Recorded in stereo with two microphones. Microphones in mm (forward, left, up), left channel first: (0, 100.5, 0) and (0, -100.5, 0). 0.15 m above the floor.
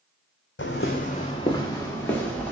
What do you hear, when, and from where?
0.6 s footsteps: 70° left (ahead or behind), 0.6 m; by 2.5 s 5° left (ahead or behind), 1.6 m